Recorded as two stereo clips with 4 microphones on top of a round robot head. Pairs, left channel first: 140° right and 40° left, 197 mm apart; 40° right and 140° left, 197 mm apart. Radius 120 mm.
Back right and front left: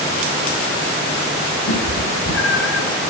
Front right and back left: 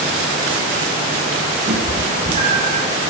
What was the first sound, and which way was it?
A cat meowing, 160° right.